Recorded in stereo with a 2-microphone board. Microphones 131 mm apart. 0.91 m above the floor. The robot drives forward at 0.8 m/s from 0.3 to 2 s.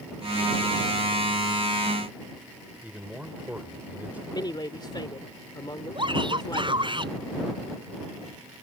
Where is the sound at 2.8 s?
10° right (ahead or behind).